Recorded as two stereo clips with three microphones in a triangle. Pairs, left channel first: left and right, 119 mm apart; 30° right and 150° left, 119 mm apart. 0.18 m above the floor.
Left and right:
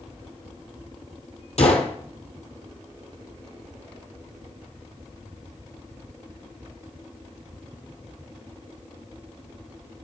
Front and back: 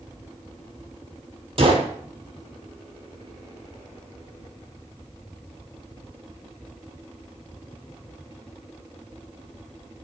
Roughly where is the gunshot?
Left.